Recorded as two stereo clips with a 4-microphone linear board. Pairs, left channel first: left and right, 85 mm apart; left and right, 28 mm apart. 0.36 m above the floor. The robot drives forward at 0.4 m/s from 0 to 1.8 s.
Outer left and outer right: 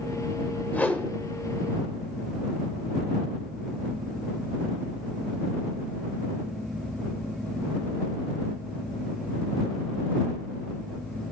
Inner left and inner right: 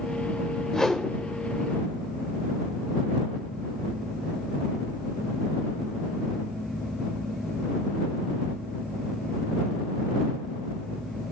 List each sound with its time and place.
0.7 s a whoosh: 20° left (ahead or behind), 0.7 m